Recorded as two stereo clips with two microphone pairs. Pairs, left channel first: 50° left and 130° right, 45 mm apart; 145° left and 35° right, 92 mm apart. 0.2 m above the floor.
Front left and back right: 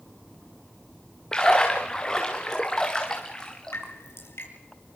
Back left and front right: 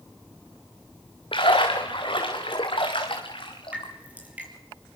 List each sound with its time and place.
1.3 s a splash: 125° left, 4 m
3.7 s dripping: 40° left, 6 m